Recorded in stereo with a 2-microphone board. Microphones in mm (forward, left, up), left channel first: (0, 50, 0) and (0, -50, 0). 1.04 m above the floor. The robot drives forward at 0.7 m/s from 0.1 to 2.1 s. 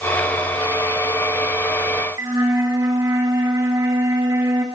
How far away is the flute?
About 1.6 m.